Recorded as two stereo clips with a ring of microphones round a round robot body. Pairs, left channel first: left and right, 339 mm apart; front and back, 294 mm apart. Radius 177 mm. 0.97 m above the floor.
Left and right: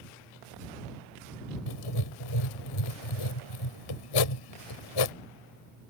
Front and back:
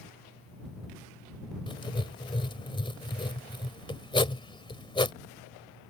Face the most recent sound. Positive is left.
turn(degrees=75)